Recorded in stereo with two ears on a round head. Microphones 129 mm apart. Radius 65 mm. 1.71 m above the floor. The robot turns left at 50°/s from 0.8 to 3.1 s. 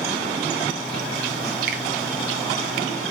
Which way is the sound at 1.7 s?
65° right (ahead or behind).